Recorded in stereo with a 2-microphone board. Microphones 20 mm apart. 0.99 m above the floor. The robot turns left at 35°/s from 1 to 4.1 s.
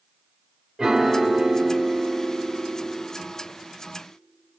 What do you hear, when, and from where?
0.8 s a piano: 20° right, 2.5 m; by 3.0 s 90° right, 2.5 m